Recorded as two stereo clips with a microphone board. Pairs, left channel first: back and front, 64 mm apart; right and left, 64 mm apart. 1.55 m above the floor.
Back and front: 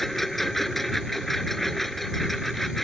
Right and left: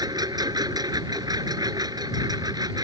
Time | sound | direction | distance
0.0 | a lawn mower | 90° left | ?